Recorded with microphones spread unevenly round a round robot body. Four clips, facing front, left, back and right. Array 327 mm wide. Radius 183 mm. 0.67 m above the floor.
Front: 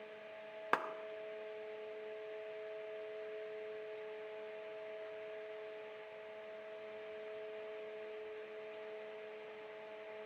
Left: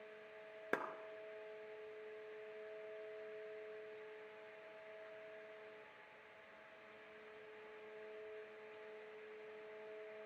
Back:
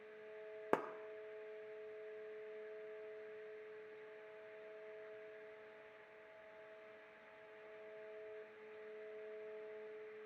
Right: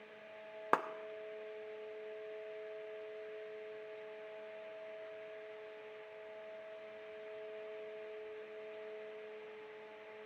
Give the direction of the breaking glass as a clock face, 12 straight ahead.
No breaking glass in this recording.